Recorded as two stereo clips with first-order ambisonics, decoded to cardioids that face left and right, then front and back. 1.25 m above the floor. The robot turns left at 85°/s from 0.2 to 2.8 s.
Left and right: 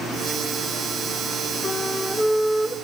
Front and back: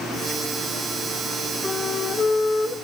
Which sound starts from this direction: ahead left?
A flute, at 1.6 s.